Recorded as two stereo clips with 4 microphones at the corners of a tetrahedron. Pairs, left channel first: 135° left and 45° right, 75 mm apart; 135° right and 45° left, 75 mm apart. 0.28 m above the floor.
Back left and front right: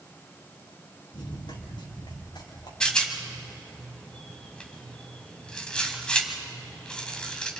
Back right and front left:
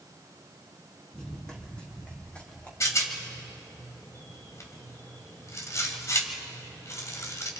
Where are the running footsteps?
145° left, 4 m; by 2.7 s 155° left, 5.5 m.